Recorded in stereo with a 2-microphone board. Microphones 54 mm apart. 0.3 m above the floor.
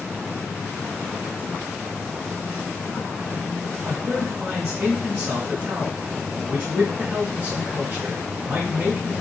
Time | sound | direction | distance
3.9 | a man speaking | 35° right (ahead or behind) | 1.7 m